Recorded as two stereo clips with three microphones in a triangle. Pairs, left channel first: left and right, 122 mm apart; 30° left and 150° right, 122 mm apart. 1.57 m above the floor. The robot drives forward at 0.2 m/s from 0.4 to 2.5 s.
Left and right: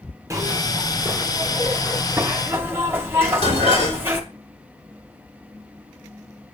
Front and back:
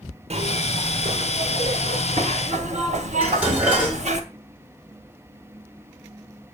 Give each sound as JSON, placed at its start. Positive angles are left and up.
{"t": 0.3, "sound": "a zipper", "azimuth_deg": -155, "distance_m": 0.7}
{"t": 3.2, "sound": "dishes clattering", "azimuth_deg": 130, "distance_m": 2.5}